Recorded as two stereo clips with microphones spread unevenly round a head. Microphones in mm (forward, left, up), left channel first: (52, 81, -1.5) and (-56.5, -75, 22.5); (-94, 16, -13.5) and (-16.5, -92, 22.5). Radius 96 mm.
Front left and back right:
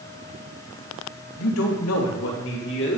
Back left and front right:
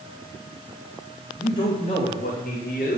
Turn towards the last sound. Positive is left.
turn(degrees=85)